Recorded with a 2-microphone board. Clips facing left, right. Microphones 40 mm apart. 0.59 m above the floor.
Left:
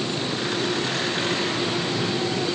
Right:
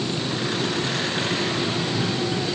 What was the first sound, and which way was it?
Only background noise.